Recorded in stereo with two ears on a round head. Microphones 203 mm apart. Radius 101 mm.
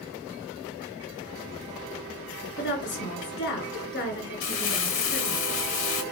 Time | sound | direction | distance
2.6 | a woman speaking | 55° left (ahead or behind) | 2.5 m
4.4 | crumpling | 60° left (ahead or behind) | 1.5 m